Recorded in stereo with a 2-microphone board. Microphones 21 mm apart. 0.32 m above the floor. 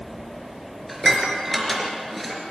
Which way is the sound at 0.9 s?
Centre (ahead or behind).